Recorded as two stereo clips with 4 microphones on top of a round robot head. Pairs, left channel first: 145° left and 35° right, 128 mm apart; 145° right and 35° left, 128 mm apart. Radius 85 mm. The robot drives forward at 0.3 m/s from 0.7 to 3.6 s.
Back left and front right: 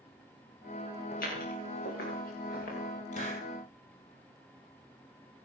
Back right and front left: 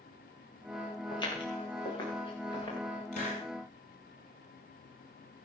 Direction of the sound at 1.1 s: 160° left.